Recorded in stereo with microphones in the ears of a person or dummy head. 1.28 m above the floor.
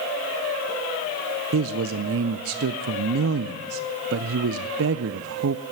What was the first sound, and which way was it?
A man speaking, 75° right (ahead or behind).